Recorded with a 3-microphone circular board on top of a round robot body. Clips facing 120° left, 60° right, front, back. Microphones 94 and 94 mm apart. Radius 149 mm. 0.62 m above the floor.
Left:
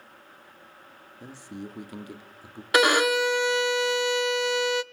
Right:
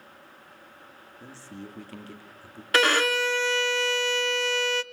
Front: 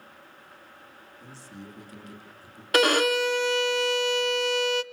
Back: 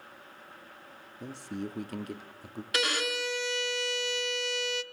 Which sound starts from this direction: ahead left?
A violin, at 2.7 s.